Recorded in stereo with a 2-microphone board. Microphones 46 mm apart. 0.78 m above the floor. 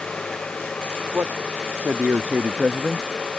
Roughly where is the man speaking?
Right.